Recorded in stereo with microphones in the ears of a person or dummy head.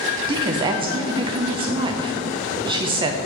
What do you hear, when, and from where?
0.3 s a woman speaking: 30° right (ahead or behind), 0.7 m